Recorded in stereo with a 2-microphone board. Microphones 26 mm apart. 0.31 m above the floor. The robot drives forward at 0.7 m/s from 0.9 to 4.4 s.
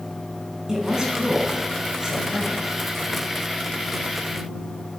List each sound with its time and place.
0.7 s a woman speaking: 20° right (ahead or behind), 3.5 m; by 2.6 s 15° right (ahead or behind), 4.5 m